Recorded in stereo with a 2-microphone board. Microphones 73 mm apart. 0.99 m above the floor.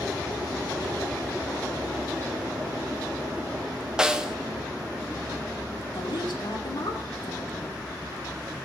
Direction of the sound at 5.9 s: 80° left.